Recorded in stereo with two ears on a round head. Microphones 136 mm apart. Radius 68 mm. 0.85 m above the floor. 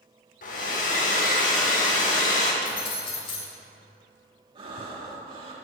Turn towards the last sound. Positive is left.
turn(degrees=-35)  # may be behind; listen again after turning